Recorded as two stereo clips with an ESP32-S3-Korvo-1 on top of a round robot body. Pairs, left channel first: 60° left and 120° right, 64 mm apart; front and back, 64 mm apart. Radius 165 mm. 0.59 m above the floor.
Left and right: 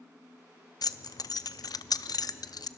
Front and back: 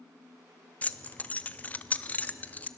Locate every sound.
0.8 s keys jangling: 65° left, 0.7 m